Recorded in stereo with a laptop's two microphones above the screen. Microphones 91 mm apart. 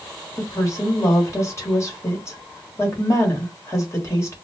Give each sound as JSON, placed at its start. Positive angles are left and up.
{"t": 0.4, "sound": "a woman speaking", "side_deg": 30, "distance_m": 1.3}